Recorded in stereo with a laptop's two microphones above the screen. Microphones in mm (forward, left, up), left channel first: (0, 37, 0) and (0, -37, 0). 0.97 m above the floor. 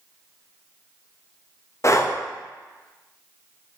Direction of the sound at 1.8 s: 40° left (ahead or behind).